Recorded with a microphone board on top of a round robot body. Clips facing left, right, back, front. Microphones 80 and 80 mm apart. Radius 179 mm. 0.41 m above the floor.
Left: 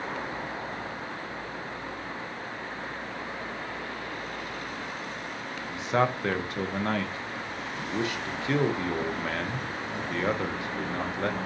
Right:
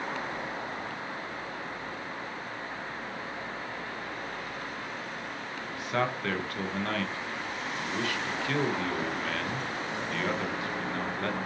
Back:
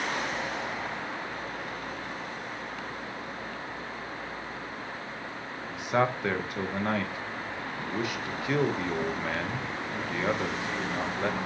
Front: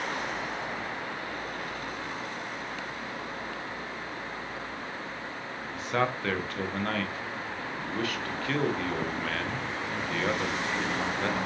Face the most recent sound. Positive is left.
turn(degrees=125)